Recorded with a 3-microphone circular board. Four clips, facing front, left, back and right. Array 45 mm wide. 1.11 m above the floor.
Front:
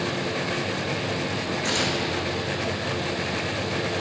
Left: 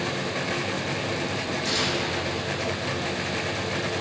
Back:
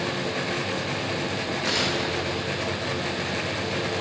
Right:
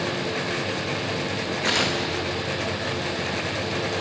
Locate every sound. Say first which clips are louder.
1.6 s tearing paper: right 5 dB, even; 95° right, 1.2 m